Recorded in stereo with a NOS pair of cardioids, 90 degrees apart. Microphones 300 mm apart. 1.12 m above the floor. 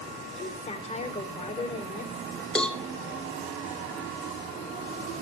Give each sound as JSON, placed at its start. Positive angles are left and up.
{"t": 0.4, "sound": "a woman speaking", "azimuth_deg": 20, "distance_m": 3.5}
{"t": 2.5, "sound": "a cowbell", "azimuth_deg": 5, "distance_m": 1.6}